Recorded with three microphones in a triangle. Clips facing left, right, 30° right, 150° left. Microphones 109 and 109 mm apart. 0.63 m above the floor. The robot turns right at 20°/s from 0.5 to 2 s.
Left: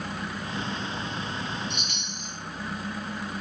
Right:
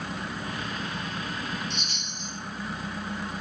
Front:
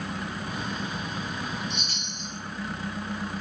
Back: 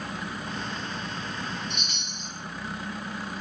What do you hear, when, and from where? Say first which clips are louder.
1.7 s a chime: left 1 dB, front 1 dB; 60° right, 0.9 m; by 2.3 s 55° right, 0.9 m